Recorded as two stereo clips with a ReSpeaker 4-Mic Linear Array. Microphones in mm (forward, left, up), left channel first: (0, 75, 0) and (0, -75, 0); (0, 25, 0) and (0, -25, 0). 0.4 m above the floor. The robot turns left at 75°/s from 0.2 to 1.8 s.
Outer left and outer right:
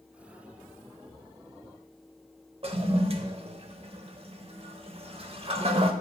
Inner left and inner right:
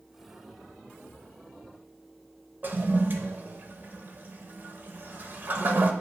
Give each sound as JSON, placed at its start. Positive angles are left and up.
{"t": 2.6, "sound": "a toilet flushing", "side_deg": -40, "distance_m": 0.6}